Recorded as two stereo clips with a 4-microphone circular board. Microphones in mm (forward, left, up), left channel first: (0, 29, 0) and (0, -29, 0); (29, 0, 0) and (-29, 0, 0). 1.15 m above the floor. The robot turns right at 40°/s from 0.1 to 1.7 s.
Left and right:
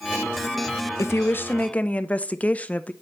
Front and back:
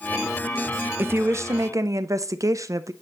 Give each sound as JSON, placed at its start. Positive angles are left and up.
{"t": 1.0, "sound": "a woman speaking", "azimuth_deg": 130, "distance_m": 0.6}